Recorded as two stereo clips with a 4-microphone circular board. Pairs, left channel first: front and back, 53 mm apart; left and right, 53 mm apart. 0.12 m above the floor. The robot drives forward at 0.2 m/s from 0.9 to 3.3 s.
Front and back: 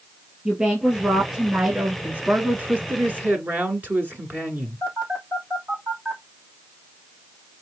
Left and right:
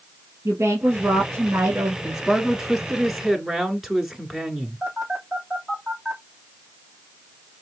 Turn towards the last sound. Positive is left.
turn(degrees=-145)